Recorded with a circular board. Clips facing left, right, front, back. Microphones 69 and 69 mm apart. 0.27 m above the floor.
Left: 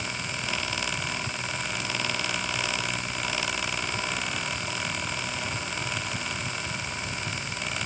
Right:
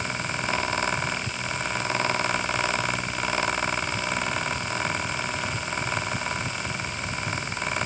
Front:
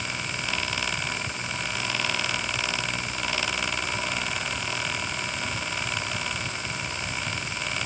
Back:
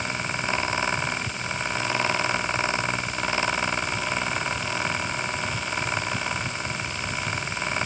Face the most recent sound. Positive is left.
No sound to turn to.